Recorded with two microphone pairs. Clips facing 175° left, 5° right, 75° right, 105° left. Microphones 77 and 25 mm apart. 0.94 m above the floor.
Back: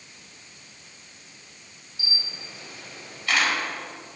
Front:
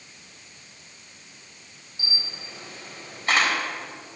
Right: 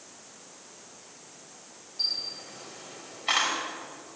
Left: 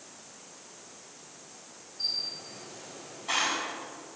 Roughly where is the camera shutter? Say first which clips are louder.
Front 1 dB, right 2 dB; ahead right.